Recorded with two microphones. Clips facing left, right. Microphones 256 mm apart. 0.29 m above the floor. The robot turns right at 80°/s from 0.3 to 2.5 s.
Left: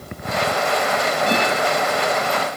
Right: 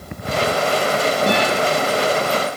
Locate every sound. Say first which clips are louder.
1.3 s a guitar: right 1 dB; 50° right (ahead or behind), 8.5 m; by 1.5 s 30° right (ahead or behind), 8.5 m